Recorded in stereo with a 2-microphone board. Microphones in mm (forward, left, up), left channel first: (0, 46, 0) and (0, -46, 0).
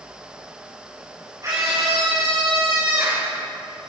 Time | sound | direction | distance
1.4 | a scream | 35° right (ahead or behind) | 4.5 m